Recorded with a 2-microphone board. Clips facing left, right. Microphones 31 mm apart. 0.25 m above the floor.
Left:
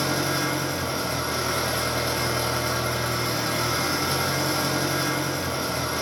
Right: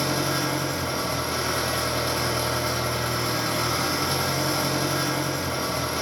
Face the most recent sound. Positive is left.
turn(degrees=15)  # may be behind; listen again after turning